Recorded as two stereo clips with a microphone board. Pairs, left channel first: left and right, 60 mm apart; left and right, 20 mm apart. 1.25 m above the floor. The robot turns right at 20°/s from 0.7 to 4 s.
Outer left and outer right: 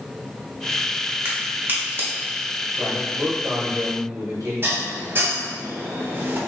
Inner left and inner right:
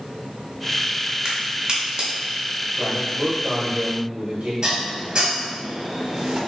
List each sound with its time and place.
1.2 s a crack: 30° right (ahead or behind), 1.0 m; by 2.1 s 35° right (ahead or behind), 1.0 m
2.8 s a man speaking: 65° right (ahead or behind), 1.4 m; by 4.5 s 85° right, 1.4 m
4.6 s dishes clattering: 40° right (ahead or behind), 0.8 m